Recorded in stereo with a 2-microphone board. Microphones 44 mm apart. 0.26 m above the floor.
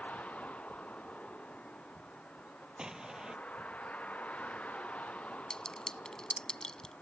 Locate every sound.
0.0 s a vehicle: 30° left (ahead or behind)
2.8 s an explosion: 15° right (ahead or behind)
5.5 s a clink: 15° left (ahead or behind)